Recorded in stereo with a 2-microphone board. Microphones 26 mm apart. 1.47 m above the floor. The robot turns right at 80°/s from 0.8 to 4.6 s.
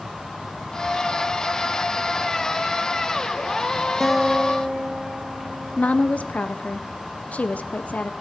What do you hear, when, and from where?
4.0 s a guitar: straight behind, 1.1 m; by 6.3 s 135° right, 1.1 m
5.8 s a woman speaking: 65° left (ahead or behind), 0.7 m